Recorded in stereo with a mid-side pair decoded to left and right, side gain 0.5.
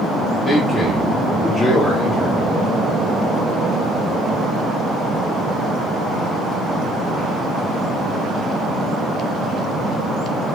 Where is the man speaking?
35° left, 4 m.